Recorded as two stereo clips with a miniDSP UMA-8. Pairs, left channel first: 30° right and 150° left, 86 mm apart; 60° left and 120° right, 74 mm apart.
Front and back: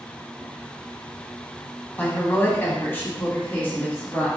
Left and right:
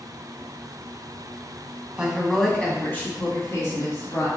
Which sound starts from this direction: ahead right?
A woman speaking, at 2.0 s.